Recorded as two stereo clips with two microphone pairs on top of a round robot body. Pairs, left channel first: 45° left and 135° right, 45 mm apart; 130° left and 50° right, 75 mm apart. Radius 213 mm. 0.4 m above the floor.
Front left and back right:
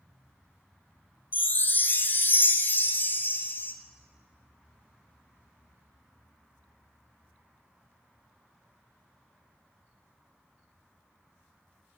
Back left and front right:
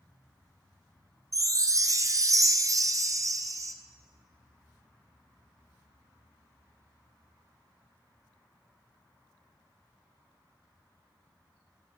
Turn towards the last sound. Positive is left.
turn(degrees=-5)